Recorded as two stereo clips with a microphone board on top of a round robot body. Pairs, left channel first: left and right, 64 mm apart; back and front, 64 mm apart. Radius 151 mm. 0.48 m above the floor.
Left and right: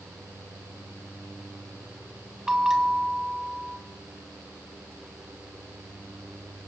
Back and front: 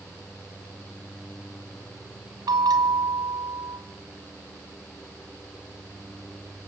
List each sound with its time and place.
2.5 s a bell: 10° right, 2.5 m